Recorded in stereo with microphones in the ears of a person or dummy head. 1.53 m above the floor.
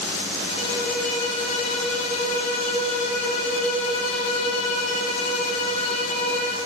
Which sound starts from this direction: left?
A violin, at 0.5 s.